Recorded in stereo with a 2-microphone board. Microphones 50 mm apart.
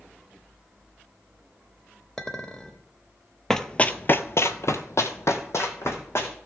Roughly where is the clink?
Centre.